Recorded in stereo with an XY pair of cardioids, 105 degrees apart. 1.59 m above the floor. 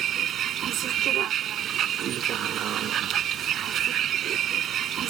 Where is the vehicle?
65° right.